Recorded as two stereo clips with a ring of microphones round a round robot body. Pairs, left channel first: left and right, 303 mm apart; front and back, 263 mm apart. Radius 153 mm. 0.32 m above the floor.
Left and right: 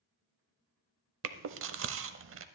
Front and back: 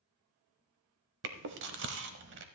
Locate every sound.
1.2 s chewing: 135° right, 0.6 m